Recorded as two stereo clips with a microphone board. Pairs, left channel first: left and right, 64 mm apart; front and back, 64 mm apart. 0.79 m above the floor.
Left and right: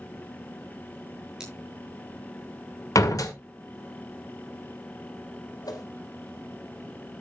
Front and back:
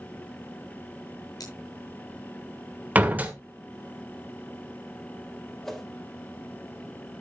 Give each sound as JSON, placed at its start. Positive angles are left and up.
{"t": 1.4, "sound": "scissors", "azimuth_deg": -10, "distance_m": 7.5}
{"t": 3.0, "sound": "a door slam", "azimuth_deg": 120, "distance_m": 1.9}
{"t": 5.6, "sound": "a whoosh", "azimuth_deg": 85, "distance_m": 3.0}